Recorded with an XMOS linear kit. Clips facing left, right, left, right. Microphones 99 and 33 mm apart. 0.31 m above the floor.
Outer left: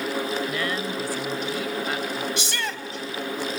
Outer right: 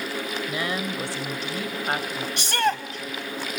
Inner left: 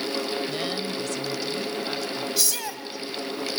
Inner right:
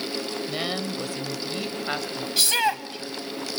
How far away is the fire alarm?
I don't hear a fire alarm.